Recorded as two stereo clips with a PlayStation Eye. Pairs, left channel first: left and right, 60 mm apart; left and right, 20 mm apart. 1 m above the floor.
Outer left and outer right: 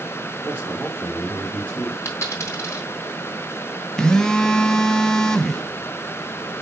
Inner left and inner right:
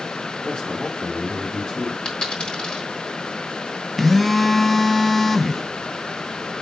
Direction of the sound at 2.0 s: 50° left (ahead or behind).